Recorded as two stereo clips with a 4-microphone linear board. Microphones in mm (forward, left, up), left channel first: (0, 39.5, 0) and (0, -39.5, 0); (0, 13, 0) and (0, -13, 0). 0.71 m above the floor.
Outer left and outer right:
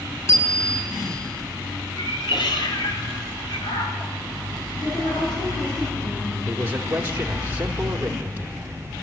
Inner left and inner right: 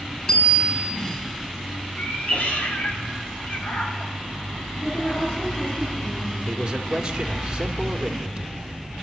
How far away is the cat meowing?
About 2.5 m.